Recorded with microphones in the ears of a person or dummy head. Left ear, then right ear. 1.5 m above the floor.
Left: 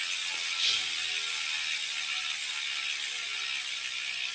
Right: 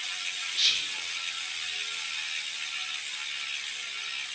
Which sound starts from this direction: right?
Whispering, at 0.6 s.